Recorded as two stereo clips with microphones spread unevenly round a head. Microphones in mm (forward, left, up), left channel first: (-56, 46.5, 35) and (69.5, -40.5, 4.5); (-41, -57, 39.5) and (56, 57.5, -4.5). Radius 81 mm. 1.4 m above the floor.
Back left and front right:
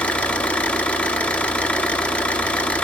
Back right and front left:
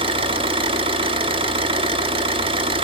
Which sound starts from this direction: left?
An engine running, at 0.0 s.